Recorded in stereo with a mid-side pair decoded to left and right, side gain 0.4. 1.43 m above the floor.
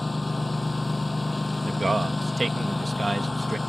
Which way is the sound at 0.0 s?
15° left.